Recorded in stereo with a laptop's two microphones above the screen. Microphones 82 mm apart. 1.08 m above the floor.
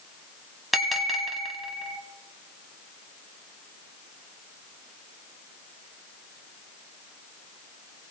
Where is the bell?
Centre (ahead or behind), 1.3 m.